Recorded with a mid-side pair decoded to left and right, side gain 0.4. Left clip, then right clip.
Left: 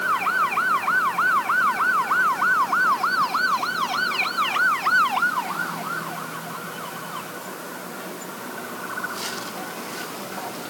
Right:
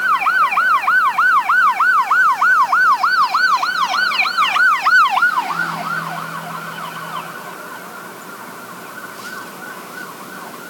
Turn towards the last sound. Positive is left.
No sound to turn to.